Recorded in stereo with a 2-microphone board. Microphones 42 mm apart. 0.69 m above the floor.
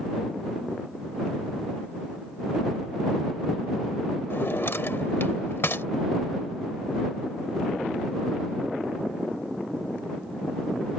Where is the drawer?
60° left (ahead or behind).